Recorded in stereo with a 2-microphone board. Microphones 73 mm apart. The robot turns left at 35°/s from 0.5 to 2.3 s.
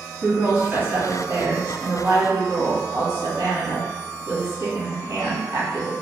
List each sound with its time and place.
0.2 s a woman speaking: 20° right, 1.6 m; by 5.9 s 80° right, 1.6 m